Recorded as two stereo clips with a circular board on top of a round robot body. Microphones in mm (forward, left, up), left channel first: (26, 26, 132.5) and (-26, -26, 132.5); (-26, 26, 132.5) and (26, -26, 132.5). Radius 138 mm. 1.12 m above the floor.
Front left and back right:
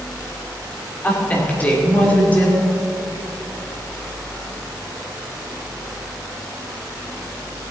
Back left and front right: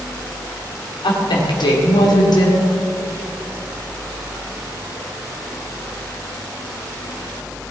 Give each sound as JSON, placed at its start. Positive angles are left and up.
{"t": 1.0, "sound": "a woman speaking", "azimuth_deg": 115, "distance_m": 3.0}